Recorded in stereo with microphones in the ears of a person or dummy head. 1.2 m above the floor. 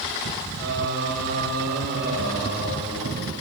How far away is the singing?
About 5 m.